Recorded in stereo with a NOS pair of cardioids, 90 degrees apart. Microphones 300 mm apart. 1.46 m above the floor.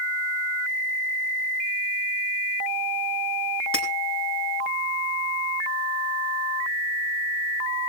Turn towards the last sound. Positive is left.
turn(degrees=45)